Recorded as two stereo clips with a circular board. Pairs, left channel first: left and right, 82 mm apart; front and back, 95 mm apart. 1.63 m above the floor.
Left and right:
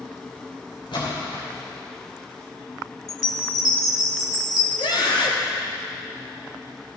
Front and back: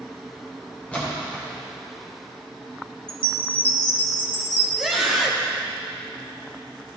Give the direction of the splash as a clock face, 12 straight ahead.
10 o'clock.